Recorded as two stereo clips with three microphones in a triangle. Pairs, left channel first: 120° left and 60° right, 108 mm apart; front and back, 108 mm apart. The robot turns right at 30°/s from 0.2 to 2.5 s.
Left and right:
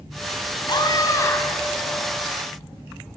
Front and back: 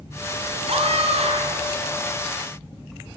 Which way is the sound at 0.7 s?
165° left.